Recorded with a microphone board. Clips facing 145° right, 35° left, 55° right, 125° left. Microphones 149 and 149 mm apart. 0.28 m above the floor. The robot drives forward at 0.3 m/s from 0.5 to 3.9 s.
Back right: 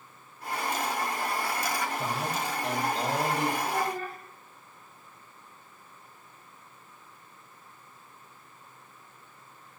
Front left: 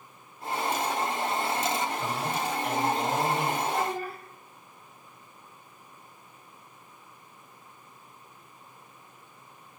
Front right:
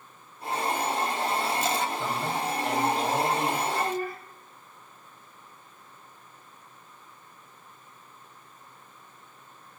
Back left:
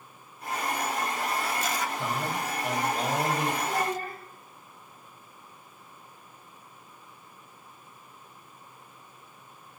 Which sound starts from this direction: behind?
A man speaking, at 2.0 s.